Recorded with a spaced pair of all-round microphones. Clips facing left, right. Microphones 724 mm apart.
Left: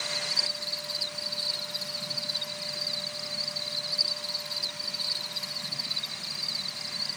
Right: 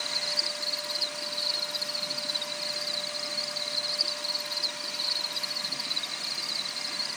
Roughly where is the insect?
Left.